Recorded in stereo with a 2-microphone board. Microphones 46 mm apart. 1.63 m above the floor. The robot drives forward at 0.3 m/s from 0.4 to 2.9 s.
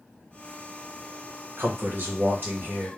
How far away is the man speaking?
About 1.1 m.